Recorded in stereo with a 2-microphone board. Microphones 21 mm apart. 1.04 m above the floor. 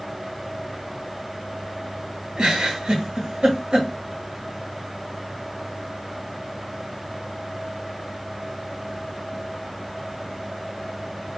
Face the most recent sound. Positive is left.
turn(degrees=-40)  # may be behind; listen again after turning